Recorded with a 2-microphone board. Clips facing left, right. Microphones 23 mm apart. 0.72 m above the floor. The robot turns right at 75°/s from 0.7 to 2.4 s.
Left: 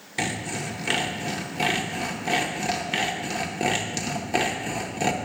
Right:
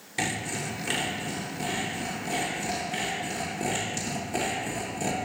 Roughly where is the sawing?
Ahead.